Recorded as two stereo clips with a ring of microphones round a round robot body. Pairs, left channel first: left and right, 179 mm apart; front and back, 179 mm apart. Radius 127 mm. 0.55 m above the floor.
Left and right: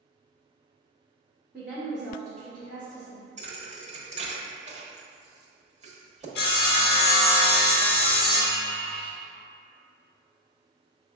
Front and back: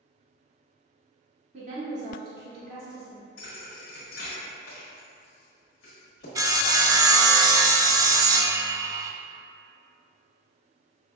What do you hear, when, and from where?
1.5 s a woman speaking: 165° right, 1.1 m; by 3.2 s 165° left, 1.9 m
3.4 s a thud: 40° right, 1.1 m
6.3 s sawing: 110° left, 0.5 m